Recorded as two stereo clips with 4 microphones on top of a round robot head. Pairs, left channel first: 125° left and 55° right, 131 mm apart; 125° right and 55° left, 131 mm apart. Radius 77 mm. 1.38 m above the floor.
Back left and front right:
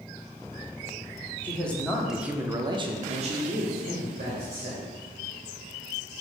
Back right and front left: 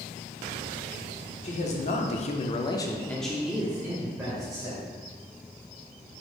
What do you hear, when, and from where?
1.4 s a man speaking: 155° right, 1.0 m; by 4.8 s 10° right, 1.6 m